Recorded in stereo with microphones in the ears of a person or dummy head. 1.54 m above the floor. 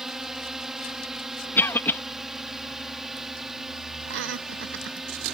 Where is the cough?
15° left (ahead or behind).